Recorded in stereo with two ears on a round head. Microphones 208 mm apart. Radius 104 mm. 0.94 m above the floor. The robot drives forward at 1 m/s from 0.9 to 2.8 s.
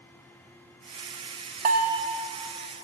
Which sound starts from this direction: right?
A bell, at 1.6 s.